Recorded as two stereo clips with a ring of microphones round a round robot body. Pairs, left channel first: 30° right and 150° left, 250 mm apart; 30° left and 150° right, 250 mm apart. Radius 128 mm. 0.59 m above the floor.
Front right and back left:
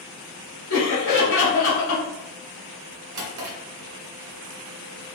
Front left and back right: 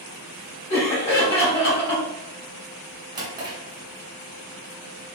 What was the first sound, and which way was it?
Laughter, 20° right.